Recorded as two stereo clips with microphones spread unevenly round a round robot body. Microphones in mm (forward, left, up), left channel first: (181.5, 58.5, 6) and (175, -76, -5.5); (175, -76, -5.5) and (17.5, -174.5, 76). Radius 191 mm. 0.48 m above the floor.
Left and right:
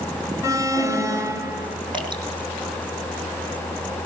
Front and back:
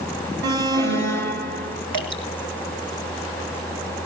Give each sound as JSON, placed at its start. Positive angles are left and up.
{"t": 0.4, "sound": "an alarm", "azimuth_deg": 165, "distance_m": 2.0}
{"t": 1.9, "sound": "dripping", "azimuth_deg": 175, "distance_m": 1.9}